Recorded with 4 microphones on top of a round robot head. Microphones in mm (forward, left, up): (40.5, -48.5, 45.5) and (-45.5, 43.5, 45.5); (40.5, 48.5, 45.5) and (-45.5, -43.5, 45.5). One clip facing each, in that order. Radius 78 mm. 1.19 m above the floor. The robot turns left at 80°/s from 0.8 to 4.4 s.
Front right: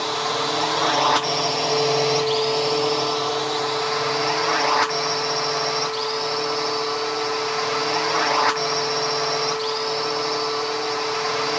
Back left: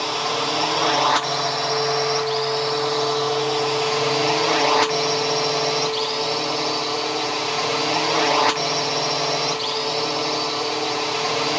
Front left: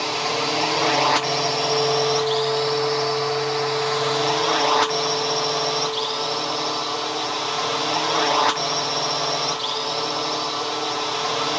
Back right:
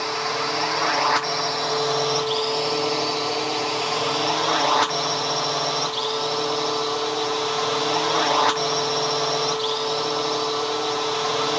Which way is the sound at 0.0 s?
60° left.